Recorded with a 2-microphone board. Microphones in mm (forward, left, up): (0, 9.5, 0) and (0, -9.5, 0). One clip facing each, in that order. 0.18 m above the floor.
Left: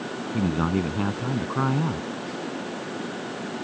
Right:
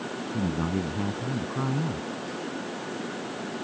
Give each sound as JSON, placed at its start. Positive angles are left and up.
{"t": 0.3, "sound": "a man speaking", "side_deg": 40}